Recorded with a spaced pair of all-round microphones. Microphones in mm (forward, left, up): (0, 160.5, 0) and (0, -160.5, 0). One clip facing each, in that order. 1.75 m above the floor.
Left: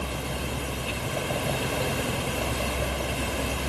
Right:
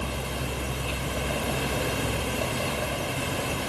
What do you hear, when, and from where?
Only background noise.